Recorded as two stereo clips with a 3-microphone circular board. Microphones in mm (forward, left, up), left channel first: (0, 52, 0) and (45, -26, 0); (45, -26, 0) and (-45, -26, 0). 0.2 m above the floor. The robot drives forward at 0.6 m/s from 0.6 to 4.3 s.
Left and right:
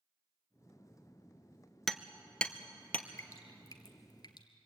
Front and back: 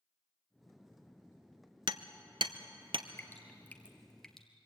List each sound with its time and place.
1.9 s hammering: 150° right, 0.8 m; by 3.1 s 165° right, 1.5 m
3.2 s dripping: 65° left, 2.0 m; by 4.5 s 85° left, 1.8 m